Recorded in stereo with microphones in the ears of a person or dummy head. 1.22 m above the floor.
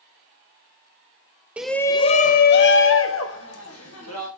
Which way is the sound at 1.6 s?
5° right (ahead or behind).